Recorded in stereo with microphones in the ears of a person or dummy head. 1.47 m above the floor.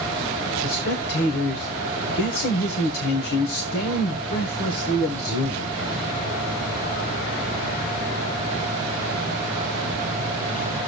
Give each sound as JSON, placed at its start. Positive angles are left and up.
{"t": 0.6, "sound": "a man speaking", "side_deg": 60, "distance_m": 1.2}